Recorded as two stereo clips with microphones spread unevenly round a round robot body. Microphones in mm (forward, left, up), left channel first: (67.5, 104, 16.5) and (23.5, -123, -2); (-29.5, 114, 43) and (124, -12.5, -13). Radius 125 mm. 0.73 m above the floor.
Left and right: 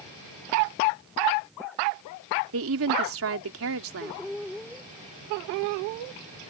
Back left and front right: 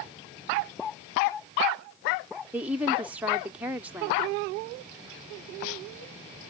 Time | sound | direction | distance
2.5 | a woman speaking | 115° right | ?